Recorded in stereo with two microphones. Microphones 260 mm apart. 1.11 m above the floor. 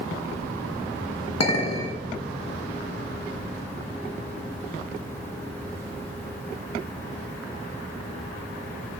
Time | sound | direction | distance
1.4 | a clink | 75° left (ahead or behind) | 1.1 m